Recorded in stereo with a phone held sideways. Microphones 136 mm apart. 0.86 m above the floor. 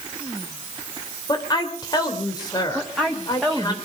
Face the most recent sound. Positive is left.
turn(degrees=0)  # may be behind; listen again after turning